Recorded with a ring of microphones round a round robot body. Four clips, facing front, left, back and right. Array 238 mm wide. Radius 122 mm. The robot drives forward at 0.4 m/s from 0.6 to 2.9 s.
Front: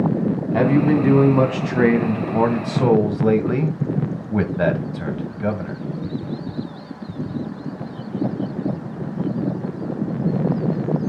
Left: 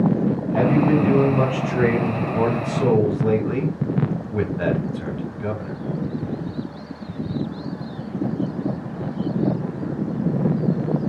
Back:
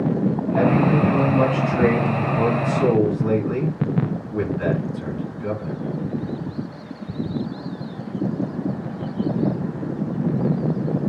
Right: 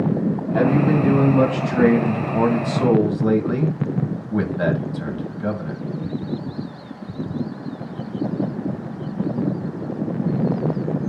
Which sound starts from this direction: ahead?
A man speaking, at 0.5 s.